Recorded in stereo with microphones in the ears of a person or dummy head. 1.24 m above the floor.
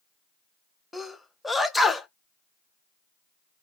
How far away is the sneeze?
About 0.7 m.